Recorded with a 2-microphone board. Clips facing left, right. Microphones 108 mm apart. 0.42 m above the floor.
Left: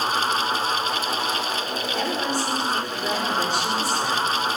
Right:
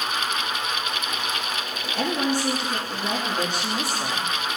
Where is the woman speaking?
55° right (ahead or behind), 4.5 m.